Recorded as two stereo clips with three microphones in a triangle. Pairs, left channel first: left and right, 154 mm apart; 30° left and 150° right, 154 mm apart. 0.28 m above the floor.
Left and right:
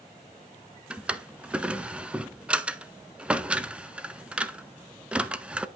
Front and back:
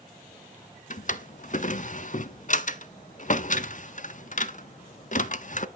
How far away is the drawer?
About 0.6 m.